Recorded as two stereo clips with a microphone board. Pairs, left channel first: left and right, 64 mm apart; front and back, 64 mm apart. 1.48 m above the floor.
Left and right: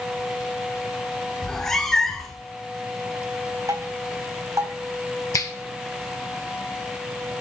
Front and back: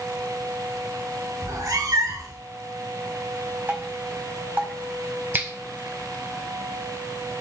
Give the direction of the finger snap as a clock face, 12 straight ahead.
8 o'clock.